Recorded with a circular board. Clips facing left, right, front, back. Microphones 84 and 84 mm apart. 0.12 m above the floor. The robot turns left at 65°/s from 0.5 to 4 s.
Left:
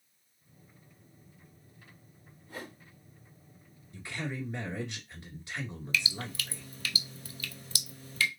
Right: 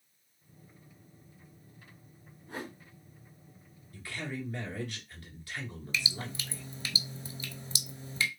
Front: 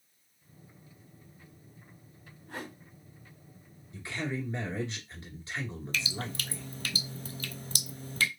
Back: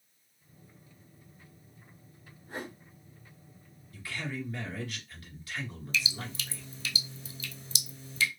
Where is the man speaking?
45° left, 1.7 m; by 6.7 s 40° left, 1.7 m.